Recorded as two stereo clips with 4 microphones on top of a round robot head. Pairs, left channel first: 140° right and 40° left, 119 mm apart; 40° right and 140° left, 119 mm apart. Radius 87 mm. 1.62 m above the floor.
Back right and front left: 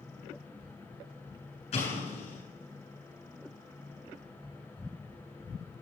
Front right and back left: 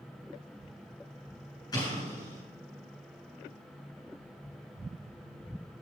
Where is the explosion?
105° right, 8 m.